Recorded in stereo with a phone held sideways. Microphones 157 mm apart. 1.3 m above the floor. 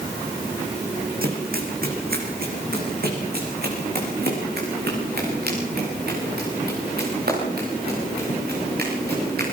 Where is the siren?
No siren in this recording.